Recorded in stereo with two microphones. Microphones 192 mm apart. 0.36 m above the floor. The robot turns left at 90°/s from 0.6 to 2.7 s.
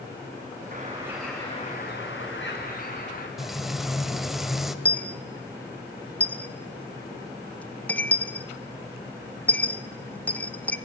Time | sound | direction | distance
0.7 | a bird | 135° right | 5 m
3.4 | frying | centre (ahead or behind) | 1.2 m
4.8 | a dropped coin | 5° left (ahead or behind) | 0.7 m